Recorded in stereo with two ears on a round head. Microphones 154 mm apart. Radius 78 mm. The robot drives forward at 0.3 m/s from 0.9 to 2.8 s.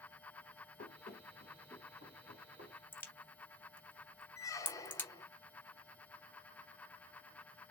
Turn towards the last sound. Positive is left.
turn(degrees=20)  # may be behind; listen again after turning